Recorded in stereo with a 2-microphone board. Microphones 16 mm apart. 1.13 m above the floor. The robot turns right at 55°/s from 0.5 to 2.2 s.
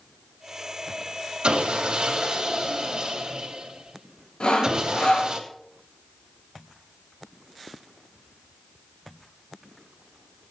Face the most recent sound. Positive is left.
turn(degrees=85)